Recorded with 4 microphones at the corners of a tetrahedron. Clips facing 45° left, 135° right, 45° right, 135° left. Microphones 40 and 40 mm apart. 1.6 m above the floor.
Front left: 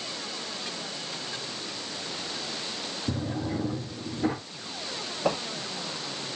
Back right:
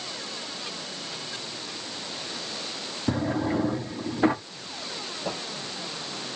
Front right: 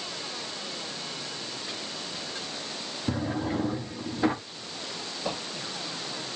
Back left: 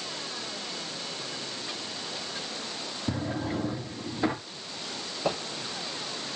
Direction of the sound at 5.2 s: 75° left.